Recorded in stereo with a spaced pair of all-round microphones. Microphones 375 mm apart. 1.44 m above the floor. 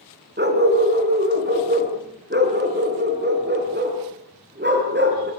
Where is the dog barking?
25° right (ahead or behind), 4.5 m.